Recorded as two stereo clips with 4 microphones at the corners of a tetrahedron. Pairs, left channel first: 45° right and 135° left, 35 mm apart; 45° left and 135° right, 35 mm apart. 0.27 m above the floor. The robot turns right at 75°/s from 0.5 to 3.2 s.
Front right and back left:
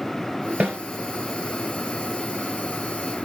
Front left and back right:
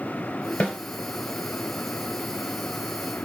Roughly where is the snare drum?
Left.